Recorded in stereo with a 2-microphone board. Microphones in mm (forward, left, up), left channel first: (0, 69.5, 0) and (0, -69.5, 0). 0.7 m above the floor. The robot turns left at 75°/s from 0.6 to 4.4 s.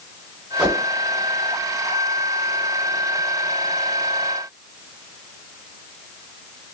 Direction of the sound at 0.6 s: 10° right (ahead or behind).